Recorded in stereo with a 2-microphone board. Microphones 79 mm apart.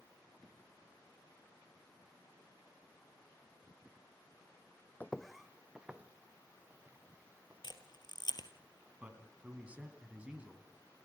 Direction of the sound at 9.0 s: 15° right (ahead or behind).